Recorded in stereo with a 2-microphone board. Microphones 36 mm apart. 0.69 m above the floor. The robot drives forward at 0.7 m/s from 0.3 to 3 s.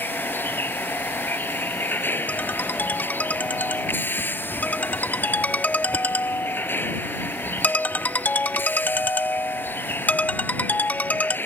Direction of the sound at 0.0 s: 75° left (ahead or behind).